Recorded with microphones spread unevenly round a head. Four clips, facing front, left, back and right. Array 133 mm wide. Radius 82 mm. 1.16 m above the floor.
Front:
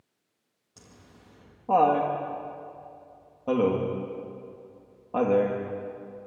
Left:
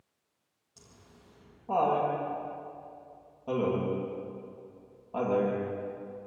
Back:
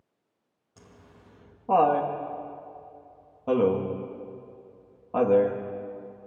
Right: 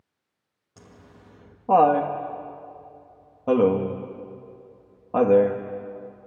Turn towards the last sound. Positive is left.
turn(degrees=-70)